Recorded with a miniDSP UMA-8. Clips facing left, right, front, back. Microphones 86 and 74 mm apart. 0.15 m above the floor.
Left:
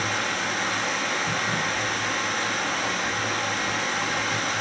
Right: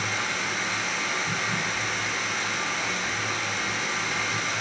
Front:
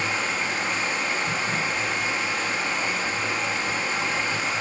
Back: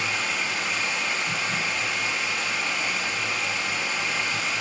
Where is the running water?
55° left, 2.5 m.